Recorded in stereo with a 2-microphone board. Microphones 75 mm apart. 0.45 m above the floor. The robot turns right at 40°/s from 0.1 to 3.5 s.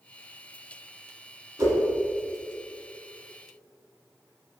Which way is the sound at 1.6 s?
40° right (ahead or behind).